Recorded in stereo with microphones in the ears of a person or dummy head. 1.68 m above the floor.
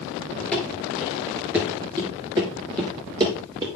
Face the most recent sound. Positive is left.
turn(degrees=-30)  # may be behind; listen again after turning